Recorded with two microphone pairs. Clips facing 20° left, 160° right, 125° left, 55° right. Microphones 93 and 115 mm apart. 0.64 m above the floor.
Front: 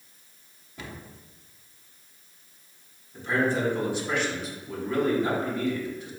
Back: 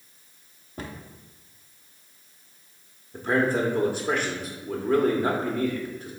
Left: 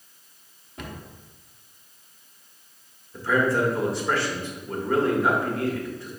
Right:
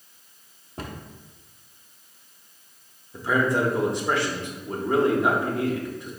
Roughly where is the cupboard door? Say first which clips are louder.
Back 4 dB, right 2 dB; behind right.